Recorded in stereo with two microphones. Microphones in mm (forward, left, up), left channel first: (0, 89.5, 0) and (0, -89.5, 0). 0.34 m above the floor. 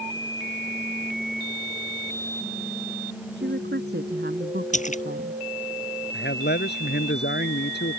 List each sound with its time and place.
3.4 s a woman speaking: 75° right (ahead or behind); by 5.4 s 60° right (ahead or behind)
4.7 s a splash: 45° left (ahead or behind)
6.1 s a man speaking: 75° left (ahead or behind)